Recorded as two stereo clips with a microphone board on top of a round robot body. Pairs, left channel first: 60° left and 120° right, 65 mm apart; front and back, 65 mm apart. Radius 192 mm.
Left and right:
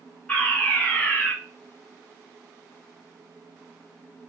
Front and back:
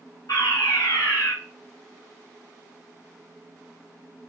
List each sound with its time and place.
0.3 s a fire alarm: 10° right, 7 m